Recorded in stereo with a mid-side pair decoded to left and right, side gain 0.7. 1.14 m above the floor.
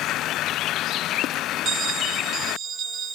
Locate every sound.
1.6 s a bell: 40° right, 1.0 m